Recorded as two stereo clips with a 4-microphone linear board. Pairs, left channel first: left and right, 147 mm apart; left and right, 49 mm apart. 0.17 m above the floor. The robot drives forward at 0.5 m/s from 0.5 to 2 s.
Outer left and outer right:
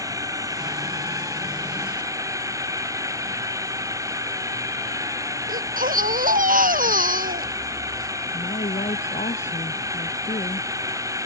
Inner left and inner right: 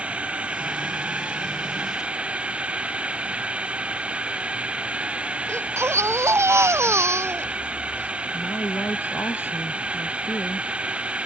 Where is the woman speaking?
55° left (ahead or behind).